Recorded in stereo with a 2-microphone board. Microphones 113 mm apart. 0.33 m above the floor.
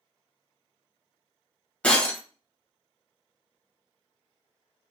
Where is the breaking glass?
10° left (ahead or behind), 0.9 m.